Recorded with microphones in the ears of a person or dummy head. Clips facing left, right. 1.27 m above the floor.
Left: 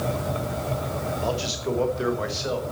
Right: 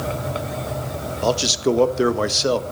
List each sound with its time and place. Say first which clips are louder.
1.2 s a man speaking: right 11 dB; 75° right (ahead or behind), 1.3 m